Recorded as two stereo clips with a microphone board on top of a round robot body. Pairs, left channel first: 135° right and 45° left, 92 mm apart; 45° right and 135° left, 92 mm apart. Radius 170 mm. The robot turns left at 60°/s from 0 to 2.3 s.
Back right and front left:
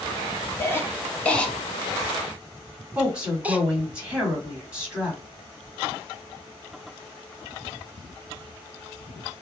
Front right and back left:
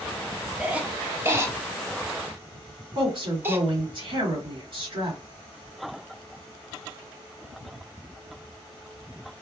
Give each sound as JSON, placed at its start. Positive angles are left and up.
{"t": 0.6, "sound": "a cough", "azimuth_deg": -155, "distance_m": 0.9}
{"t": 3.0, "sound": "a woman speaking", "azimuth_deg": 125, "distance_m": 2.0}